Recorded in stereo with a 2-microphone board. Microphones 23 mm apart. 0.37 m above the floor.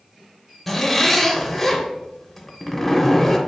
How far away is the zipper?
About 0.6 m.